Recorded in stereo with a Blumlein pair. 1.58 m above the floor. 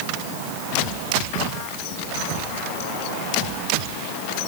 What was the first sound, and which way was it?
Only background noise.